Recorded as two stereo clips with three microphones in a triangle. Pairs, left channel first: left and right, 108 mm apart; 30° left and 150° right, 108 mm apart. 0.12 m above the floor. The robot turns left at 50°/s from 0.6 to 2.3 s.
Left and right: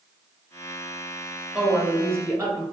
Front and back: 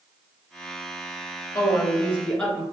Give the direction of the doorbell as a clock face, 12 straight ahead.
No doorbell in this recording.